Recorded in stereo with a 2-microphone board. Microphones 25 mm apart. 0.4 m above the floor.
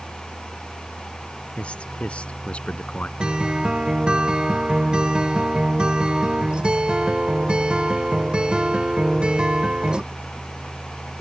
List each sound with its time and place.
1.6 s a man speaking: 60° left (ahead or behind)
3.2 s a guitar: 50° right (ahead or behind)